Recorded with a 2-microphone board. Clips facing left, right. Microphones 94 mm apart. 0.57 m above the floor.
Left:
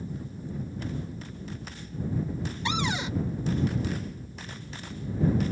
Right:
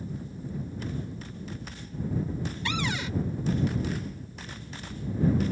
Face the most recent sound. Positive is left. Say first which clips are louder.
# left 3 dB
turn(degrees=20)  # may be behind; listen again after turning